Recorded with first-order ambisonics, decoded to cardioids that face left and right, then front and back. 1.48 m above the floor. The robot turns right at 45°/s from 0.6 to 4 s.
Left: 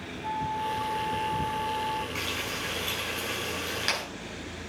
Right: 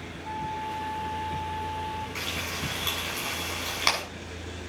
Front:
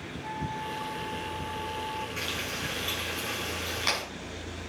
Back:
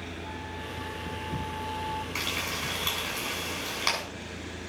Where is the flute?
65° left, 2.5 m; by 2.0 s 130° left, 2.5 m.